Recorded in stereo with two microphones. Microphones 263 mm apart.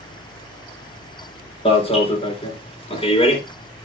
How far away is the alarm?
About 3.5 m.